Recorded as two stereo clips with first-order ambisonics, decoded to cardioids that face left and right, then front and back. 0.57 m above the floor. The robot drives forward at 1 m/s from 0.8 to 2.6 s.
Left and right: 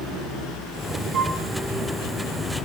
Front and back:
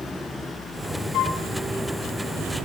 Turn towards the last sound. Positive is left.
turn(degrees=-140)